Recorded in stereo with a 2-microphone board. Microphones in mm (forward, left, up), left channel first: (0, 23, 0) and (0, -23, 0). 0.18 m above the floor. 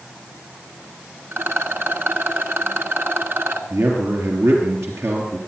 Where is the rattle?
55° right (ahead or behind), 1.4 m.